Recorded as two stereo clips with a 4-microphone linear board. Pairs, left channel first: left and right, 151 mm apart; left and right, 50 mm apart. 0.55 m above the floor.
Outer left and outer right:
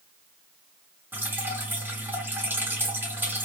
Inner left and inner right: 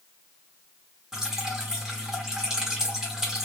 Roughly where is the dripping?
Centre.